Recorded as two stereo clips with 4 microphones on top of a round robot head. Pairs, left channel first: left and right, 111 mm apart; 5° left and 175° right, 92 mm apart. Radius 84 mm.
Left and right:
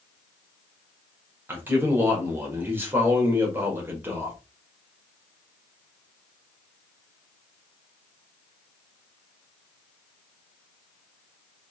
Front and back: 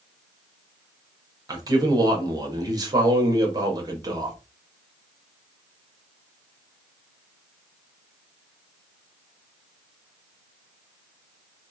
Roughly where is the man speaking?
Behind right.